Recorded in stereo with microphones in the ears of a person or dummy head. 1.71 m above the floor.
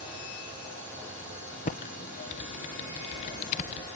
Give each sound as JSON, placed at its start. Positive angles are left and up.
{"t": 1.6, "sound": "typing on a keyboard", "side_deg": 30, "distance_m": 0.7}